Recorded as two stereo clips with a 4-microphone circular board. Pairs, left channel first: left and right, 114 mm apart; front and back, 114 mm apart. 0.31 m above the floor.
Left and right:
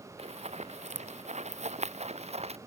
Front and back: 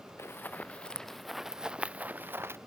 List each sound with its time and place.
0.2 s running footsteps: 70° right; by 2.6 s 110° right